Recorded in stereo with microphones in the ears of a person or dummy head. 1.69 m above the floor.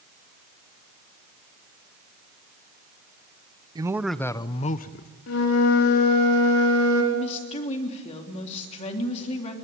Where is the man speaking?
20° right (ahead or behind), 0.8 m; by 5.1 s 50° left (ahead or behind), 1.1 m.